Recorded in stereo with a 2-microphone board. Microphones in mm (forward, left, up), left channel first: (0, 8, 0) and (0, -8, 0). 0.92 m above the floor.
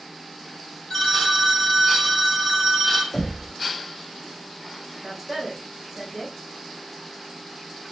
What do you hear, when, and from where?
0.9 s a phone ringing: 20° left (ahead or behind), 1.5 m
3.1 s knocking: 35° left (ahead or behind), 2.0 m
5.0 s a woman speaking: 10° left (ahead or behind), 1.6 m